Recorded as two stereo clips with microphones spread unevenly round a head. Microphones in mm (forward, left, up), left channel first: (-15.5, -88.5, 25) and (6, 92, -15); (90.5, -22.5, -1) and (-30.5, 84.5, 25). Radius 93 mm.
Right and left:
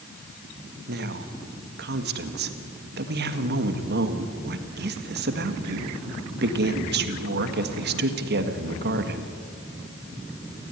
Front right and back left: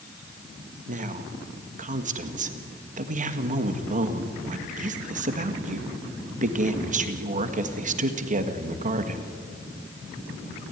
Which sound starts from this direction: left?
A woman speaking, at 0.9 s.